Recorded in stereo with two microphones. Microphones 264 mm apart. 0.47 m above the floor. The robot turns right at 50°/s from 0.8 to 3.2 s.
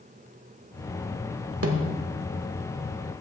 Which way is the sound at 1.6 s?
65° right (ahead or behind).